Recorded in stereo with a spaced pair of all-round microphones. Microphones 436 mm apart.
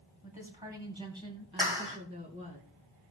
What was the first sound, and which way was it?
A woman speaking, 15° right (ahead or behind).